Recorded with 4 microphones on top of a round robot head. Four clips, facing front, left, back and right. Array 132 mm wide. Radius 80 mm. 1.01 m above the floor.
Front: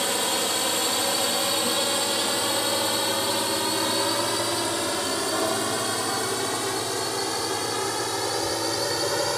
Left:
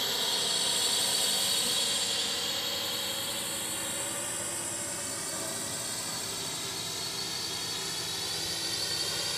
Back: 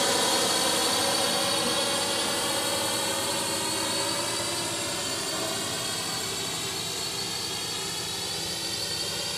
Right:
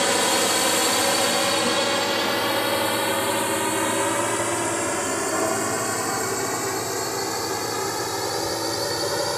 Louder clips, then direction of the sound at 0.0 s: Right 15 dB, back 1 dB; 95° right.